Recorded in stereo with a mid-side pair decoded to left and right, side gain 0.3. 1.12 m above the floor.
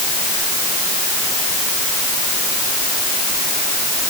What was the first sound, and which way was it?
Only background noise.